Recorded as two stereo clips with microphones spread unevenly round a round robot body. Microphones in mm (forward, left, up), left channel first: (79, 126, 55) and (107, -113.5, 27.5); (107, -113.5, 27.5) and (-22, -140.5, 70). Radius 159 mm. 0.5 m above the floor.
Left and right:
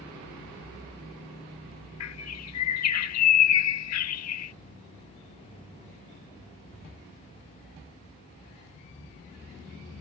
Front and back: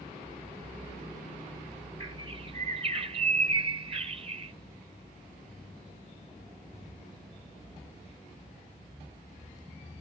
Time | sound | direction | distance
2.0 | a bird | 125° left | ?